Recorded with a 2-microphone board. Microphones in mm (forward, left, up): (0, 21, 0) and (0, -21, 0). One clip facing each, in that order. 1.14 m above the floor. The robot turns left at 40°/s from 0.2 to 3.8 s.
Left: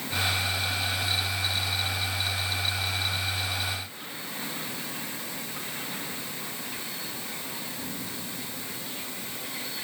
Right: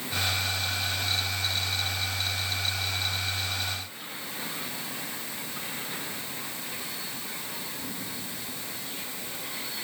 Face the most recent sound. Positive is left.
No sound to turn to.